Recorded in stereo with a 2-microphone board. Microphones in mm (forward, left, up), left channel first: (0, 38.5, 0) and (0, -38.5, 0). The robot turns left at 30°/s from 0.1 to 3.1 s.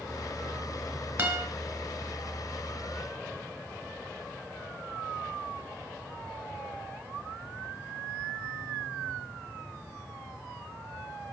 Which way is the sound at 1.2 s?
25° right (ahead or behind).